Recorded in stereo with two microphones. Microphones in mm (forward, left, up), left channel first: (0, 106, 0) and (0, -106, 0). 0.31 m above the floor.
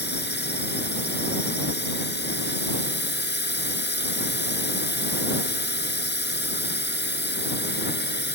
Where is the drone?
55° left (ahead or behind).